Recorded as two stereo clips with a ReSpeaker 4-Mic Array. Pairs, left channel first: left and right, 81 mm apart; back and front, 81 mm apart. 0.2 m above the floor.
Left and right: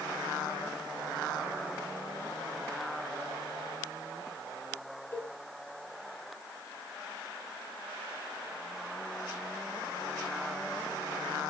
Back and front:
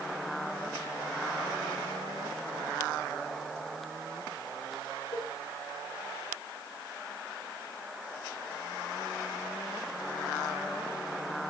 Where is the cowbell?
155° left, 5 m.